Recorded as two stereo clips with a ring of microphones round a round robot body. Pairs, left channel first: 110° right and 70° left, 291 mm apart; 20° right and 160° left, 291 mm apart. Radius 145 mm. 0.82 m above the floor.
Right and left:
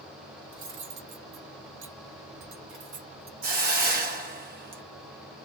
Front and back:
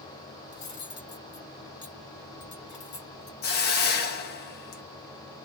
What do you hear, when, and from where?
0.5 s cutlery clinking: 35° left, 1.9 m
3.4 s a hiss: 20° left, 1.2 m